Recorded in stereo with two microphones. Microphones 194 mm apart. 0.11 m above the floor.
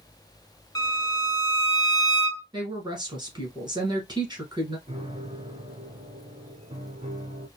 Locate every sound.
0.8 s a violin: 20° left (ahead or behind), 0.9 m
2.5 s a woman speaking: 20° right (ahead or behind), 1.6 m
4.9 s a piano: 25° right (ahead or behind), 1.2 m